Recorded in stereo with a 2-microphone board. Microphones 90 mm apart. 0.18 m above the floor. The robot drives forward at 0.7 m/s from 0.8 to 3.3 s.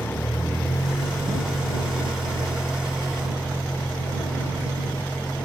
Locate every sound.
0.0 s a vehicle: 20° left (ahead or behind); by 5.5 s 10° right (ahead or behind)